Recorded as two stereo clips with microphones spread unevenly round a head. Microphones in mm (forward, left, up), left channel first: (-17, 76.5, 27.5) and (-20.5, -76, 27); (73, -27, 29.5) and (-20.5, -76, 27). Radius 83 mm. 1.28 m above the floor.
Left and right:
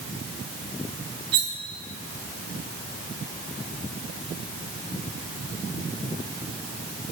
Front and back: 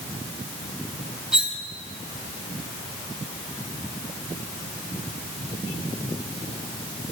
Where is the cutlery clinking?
70° right, 1.5 m.